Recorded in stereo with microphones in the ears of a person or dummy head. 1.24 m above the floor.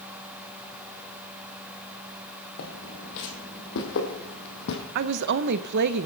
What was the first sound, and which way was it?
Footsteps, 55° left (ahead or behind).